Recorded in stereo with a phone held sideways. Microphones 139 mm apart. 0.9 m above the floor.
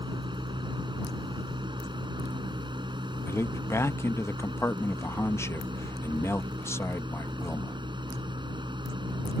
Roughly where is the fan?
Right.